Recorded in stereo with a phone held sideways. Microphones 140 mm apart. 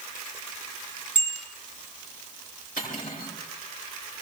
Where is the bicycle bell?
65° left (ahead or behind), 6.5 m.